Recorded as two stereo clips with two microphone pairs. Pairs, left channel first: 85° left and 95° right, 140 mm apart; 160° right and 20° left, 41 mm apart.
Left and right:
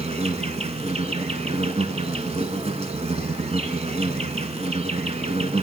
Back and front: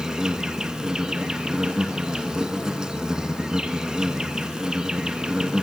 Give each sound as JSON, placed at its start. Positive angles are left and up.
{"t": 0.0, "sound": "an insect", "azimuth_deg": -50, "distance_m": 1.7}